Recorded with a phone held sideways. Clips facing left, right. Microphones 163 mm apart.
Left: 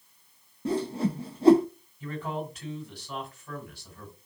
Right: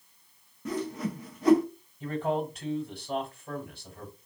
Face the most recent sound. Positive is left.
turn(degrees=-50)  # may be behind; listen again after turning